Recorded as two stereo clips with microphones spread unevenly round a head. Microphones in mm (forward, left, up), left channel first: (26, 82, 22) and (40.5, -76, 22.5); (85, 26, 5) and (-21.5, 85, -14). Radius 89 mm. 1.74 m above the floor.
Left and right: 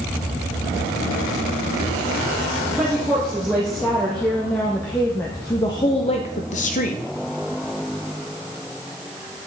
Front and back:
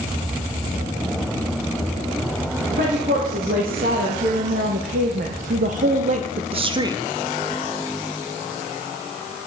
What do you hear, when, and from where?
2.8 s a woman speaking: 170° right, 2.5 m; by 7.0 s 90° left, 0.7 m